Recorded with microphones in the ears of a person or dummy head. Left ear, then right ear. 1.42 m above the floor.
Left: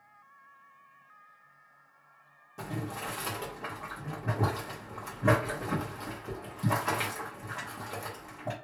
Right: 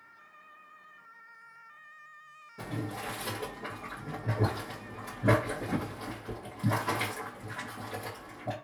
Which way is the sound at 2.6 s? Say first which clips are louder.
Even; 55° left (ahead or behind).